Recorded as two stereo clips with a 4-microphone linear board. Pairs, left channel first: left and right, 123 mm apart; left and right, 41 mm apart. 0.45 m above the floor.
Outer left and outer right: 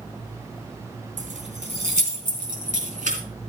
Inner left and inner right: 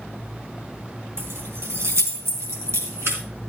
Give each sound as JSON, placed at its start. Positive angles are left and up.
{"t": 1.2, "sound": "keys jangling", "side_deg": -70, "distance_m": 3.5}